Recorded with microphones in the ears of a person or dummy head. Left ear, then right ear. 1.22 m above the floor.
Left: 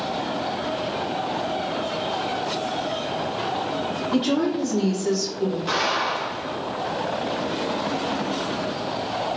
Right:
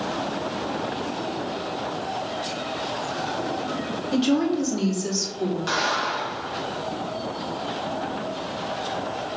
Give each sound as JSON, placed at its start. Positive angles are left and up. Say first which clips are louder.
{"t": 4.1, "sound": "a woman speaking", "louder": "right 1 dB", "side_deg": -30, "distance_m": 2.0}
{"t": 5.7, "sound": "an explosion", "louder": "left 1 dB", "side_deg": -25, "distance_m": 2.0}